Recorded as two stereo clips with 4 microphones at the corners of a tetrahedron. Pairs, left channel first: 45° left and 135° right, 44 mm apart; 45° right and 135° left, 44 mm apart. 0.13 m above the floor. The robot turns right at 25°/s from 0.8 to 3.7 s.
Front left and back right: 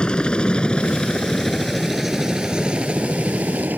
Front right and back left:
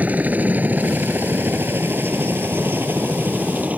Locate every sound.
0.0 s a helicopter: 105° left; by 3.8 s 175° right